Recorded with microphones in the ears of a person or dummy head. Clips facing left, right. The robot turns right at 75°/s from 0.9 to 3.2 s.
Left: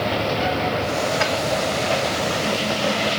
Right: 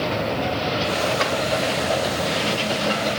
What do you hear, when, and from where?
1.2 s a drawer: 55° right (ahead or behind), 2.5 m; by 1.3 s 60° right (ahead or behind), 2.5 m